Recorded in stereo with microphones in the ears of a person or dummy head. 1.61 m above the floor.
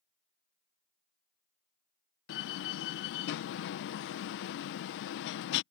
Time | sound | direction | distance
2.3 | a door slam | 60° left (ahead or behind) | ?